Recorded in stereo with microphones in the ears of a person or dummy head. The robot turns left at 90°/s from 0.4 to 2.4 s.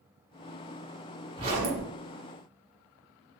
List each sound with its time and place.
1.4 s a zipper: 25° right, 1.3 m; by 1.9 s 70° right, 1.3 m